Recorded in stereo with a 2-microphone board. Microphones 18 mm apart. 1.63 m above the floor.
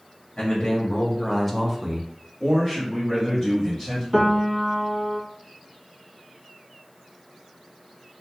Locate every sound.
0.4 s a man speaking: 60° left (ahead or behind), 1.1 m; by 2.1 s 35° right (ahead or behind), 0.7 m
2.4 s a man speaking: 10° left (ahead or behind), 1.0 m
4.1 s a piano: 10° right (ahead or behind), 0.7 m